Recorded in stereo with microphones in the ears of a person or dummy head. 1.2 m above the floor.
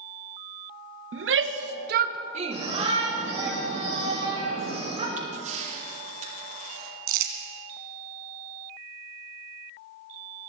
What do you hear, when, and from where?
1.1 s a shout: 65° right (ahead or behind), 1.2 m; by 3.5 s centre (ahead or behind), 1.6 m
2.5 s a shout: 35° right (ahead or behind), 5.5 m
5.2 s a camera shutter: 50° right (ahead or behind), 7 m
7.1 s crumpling: 60° right (ahead or behind), 2 m